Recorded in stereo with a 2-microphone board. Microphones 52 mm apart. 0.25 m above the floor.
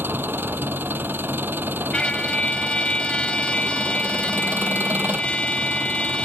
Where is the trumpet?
20° left (ahead or behind).